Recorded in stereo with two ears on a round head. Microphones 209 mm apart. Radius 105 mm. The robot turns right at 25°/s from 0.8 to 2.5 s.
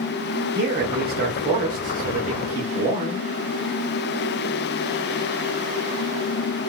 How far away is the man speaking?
About 1.0 m.